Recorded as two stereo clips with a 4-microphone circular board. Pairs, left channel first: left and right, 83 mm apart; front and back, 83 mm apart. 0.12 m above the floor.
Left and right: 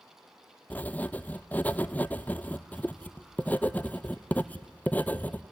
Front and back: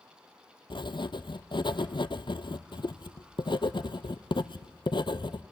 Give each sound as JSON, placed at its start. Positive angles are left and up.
{"t": 0.7, "sound": "writing", "azimuth_deg": 20, "distance_m": 0.6}